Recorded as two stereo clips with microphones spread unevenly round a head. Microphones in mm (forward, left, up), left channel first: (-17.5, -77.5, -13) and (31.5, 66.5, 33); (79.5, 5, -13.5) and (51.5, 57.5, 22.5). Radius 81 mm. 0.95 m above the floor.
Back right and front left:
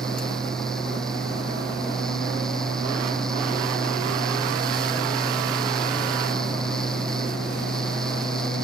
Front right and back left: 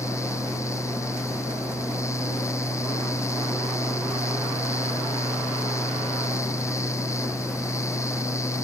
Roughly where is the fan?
Ahead.